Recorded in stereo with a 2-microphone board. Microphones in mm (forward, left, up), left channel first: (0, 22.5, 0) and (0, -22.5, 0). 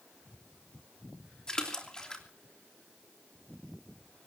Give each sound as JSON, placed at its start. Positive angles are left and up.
{"t": 1.5, "sound": "a splash", "side_deg": 15, "distance_m": 3.0}